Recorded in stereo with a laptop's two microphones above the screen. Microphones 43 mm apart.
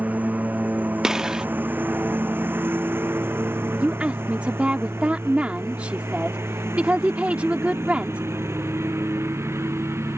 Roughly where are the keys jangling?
No keys jangling in this recording.